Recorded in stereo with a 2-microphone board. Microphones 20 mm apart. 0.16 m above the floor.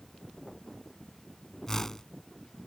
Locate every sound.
1.7 s a whoosh: 25° left (ahead or behind)